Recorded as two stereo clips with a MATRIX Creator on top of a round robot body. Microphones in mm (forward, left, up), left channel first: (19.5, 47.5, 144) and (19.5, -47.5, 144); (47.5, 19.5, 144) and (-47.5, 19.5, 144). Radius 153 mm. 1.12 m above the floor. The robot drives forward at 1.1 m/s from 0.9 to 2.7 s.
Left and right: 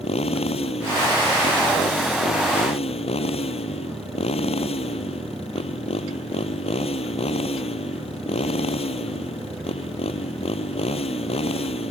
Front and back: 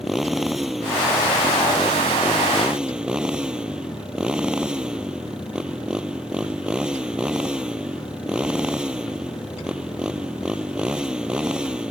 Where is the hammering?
No hammering in this recording.